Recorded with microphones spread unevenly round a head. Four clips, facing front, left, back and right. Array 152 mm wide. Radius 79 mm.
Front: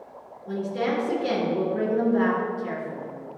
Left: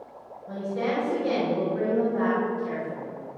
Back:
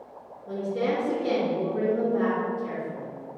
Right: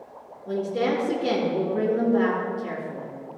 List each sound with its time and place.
0.5 s a woman speaking: 75° right, 4 m